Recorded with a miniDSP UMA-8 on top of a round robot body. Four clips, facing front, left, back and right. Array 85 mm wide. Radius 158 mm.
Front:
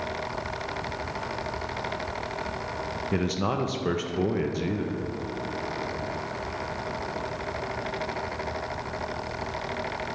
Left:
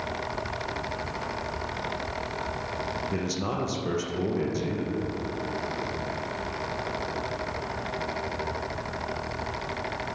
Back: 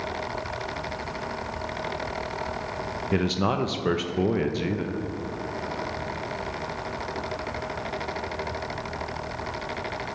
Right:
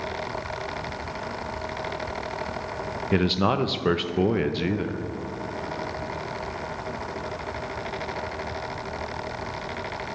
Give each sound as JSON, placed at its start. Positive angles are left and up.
{"t": 3.1, "sound": "a man speaking", "azimuth_deg": -105, "distance_m": 0.6}